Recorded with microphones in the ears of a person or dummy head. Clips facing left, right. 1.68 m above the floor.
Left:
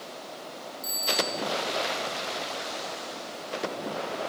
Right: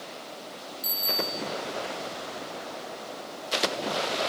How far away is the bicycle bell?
About 6.5 m.